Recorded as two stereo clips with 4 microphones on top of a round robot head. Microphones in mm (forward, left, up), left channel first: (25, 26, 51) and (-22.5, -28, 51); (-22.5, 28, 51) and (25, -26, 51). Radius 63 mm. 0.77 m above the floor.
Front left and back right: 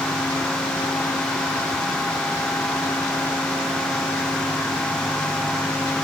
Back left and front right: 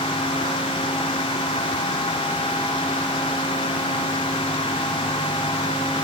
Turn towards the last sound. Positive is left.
No sound to turn to.